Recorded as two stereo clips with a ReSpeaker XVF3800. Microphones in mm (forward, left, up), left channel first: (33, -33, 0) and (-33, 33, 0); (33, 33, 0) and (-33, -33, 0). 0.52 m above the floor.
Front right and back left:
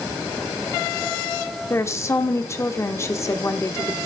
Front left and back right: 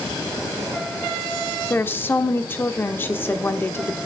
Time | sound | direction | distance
1.7 | a woman speaking | 10° right | 1.0 m